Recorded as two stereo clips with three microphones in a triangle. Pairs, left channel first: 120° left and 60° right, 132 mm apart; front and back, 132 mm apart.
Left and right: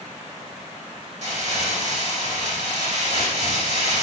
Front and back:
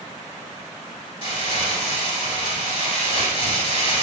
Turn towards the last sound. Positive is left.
turn(degrees=-40)